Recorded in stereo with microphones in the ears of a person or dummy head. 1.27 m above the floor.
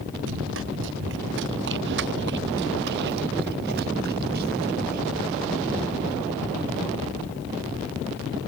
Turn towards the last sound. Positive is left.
turn(degrees=-50)  # may be behind; listen again after turning